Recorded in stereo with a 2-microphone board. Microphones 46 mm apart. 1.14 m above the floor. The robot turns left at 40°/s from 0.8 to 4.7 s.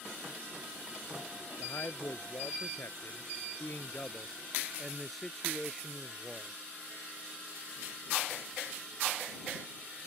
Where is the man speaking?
125° left; by 6.5 s straight ahead.